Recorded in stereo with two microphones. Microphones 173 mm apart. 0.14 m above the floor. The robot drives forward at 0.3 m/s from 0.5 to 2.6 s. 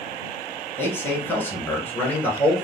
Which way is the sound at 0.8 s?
10° left (ahead or behind).